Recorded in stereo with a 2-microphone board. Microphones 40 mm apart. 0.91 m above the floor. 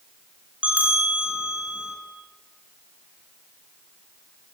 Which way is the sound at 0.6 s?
35° right (ahead or behind).